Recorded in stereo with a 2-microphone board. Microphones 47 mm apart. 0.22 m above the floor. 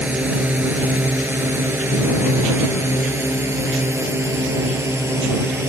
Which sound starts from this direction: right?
A drone, at 0.0 s.